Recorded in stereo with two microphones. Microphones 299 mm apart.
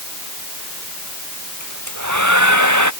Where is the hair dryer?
80° right.